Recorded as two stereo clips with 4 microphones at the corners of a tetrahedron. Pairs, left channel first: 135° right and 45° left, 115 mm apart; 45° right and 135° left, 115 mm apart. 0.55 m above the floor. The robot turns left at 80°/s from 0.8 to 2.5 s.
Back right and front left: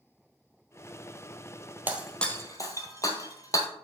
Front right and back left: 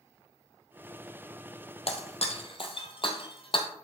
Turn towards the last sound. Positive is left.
turn(degrees=-80)